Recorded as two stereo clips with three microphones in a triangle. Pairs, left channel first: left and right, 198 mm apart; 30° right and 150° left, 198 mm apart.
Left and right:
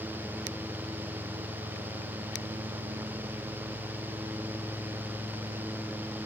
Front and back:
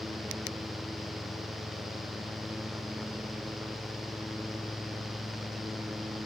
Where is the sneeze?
No sneeze in this recording.